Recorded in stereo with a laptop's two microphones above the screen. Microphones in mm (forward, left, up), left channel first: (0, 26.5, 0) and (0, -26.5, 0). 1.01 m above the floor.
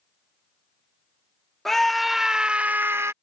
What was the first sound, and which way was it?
A scream, 5° left (ahead or behind).